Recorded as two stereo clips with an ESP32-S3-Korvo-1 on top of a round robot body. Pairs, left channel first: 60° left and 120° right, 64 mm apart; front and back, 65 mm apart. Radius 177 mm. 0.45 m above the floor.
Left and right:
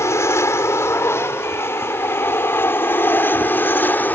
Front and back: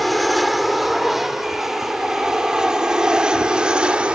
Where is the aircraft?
90° left; by 4.2 s 110° left.